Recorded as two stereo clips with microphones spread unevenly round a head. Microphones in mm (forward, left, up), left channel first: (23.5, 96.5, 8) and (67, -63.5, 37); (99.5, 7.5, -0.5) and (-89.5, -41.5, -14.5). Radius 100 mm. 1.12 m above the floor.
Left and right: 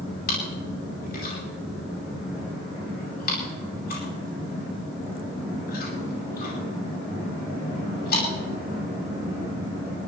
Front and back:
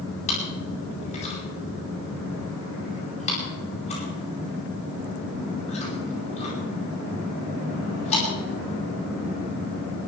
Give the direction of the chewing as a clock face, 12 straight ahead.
9 o'clock.